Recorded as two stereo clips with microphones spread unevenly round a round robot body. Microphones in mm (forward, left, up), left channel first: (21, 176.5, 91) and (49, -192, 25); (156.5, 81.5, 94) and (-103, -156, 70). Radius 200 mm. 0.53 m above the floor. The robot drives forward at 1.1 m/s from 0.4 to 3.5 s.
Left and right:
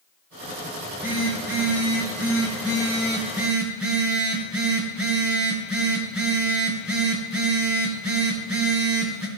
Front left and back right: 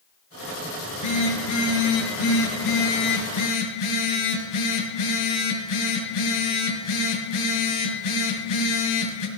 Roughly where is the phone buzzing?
Ahead.